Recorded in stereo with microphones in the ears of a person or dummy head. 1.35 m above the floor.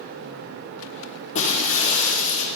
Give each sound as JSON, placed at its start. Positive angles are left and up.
{"t": 1.4, "sound": "breaking glass", "side_deg": 40, "distance_m": 5.0}